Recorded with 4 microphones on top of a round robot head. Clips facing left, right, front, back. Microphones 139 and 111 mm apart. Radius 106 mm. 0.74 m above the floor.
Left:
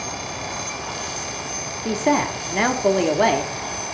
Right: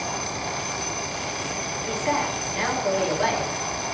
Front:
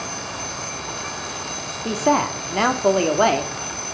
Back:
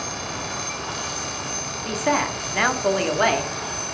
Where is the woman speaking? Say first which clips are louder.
Left 6 dB, front 4 dB; 55° left, 1.5 m.